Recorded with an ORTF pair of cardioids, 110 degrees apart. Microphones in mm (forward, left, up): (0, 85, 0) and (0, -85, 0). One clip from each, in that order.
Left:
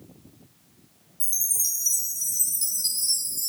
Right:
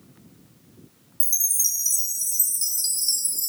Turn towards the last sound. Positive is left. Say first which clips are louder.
# right 4 dB
turn(degrees=-40)